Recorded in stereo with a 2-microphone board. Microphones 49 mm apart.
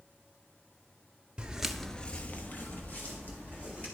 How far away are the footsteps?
About 0.7 m.